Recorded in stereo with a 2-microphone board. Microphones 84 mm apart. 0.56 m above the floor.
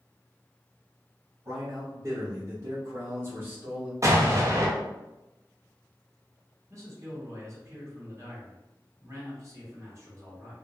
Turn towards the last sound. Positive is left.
turn(degrees=-35)  # may be behind; listen again after turning